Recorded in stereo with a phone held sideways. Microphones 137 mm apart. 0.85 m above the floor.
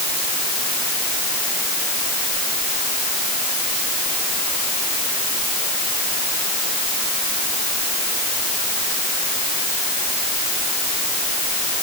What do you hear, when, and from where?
Only background noise.